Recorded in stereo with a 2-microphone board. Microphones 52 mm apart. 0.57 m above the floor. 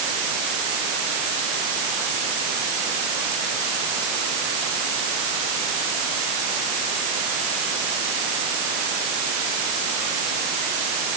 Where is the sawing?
I don't hear sawing.